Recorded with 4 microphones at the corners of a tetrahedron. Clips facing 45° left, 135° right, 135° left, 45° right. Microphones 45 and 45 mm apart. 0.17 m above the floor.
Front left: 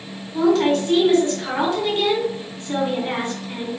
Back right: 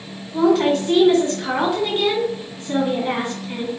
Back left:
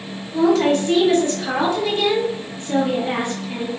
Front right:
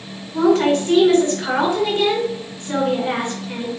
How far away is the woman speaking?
About 1.9 m.